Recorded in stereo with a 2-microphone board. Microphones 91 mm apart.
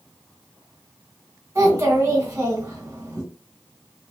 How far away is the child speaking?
About 1.7 m.